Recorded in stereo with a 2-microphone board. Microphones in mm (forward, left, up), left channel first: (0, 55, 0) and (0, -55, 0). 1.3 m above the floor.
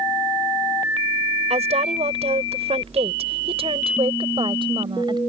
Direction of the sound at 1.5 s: 85° right.